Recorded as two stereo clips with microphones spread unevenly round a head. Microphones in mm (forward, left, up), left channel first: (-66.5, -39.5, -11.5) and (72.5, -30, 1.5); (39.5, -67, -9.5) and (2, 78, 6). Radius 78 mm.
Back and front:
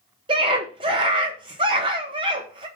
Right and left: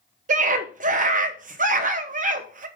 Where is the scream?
65° left, 1.3 m.